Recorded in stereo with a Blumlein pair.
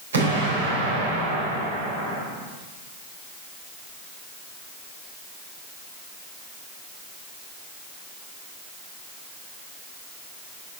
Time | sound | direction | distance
0.1 | an explosion | 65° right | 3 m